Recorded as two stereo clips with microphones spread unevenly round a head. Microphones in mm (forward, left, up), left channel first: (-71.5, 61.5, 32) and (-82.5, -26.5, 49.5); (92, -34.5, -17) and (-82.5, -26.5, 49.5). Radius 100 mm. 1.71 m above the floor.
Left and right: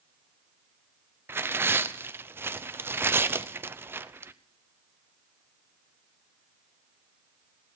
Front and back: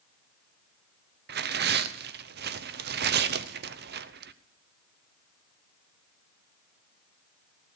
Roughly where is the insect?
I don't hear an insect.